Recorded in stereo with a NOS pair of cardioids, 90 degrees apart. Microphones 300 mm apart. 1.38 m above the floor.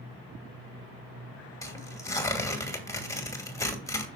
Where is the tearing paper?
10° left, 2 m.